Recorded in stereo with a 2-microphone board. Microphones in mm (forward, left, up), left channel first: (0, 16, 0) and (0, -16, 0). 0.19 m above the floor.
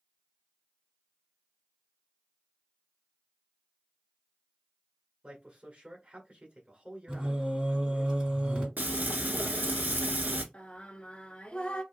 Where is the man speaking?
40° right (ahead or behind), 1.4 m.